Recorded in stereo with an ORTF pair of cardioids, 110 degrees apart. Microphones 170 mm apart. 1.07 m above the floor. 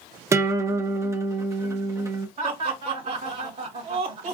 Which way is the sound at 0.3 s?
20° right.